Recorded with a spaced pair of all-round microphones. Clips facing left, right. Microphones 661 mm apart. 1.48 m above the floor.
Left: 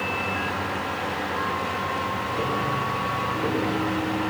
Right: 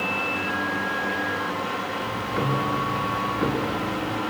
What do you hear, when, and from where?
0.0 s a fan: 85° left, 7 m
2.0 s ticking: 85° right, 2.5 m